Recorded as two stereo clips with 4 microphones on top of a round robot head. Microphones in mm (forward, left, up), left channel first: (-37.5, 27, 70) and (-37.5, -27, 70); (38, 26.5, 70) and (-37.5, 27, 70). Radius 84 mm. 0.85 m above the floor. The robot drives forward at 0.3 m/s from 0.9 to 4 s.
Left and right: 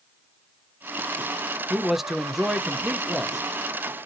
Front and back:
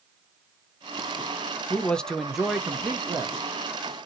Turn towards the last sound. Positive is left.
turn(degrees=-175)